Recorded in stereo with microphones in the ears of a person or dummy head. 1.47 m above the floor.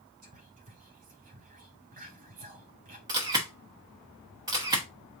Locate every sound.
0.2 s whispering: 35° right (ahead or behind), 1.2 m
3.1 s a camera shutter: 20° right (ahead or behind), 0.9 m